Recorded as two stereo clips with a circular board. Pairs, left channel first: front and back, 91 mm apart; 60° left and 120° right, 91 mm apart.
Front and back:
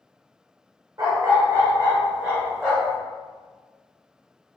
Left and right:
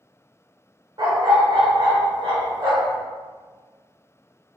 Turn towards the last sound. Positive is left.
turn(degrees=-90)